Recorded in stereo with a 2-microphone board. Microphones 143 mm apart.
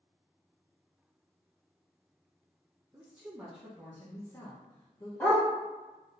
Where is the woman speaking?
20° right (ahead or behind), 1.1 m; by 5.1 s 40° left (ahead or behind), 1.2 m.